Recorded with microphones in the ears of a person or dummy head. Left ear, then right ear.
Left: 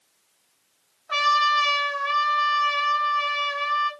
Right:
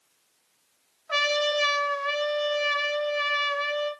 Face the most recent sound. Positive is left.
turn(degrees=0)  # may be behind; listen again after turning